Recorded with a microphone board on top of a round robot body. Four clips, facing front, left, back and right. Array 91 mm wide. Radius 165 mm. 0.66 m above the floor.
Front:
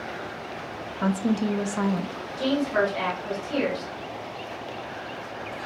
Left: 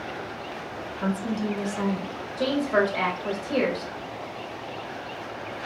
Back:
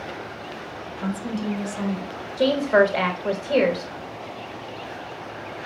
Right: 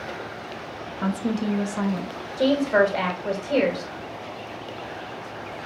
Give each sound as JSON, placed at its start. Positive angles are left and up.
{"t": 1.0, "sound": "a woman speaking", "azimuth_deg": -30, "distance_m": 0.8}
{"t": 2.4, "sound": "a woman speaking", "azimuth_deg": -165, "distance_m": 1.5}